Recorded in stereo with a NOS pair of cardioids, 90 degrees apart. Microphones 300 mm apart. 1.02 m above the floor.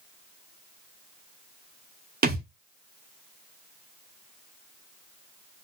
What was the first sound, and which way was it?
A thud, 30° right.